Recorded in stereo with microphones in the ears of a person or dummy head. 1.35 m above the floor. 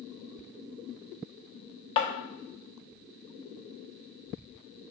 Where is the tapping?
30° left (ahead or behind), 0.6 m.